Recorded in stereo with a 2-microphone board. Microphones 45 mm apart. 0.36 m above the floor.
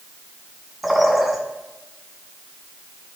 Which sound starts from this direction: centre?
A bird, at 0.8 s.